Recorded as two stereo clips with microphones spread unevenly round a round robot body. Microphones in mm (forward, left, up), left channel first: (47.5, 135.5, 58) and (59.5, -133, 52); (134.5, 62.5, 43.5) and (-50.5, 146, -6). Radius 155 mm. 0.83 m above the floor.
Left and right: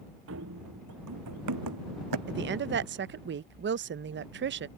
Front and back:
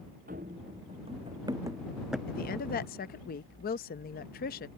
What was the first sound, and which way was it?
Running footsteps, 135° right.